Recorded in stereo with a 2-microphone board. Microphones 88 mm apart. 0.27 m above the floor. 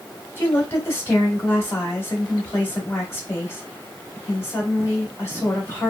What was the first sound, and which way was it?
A woman speaking, 25° left (ahead or behind).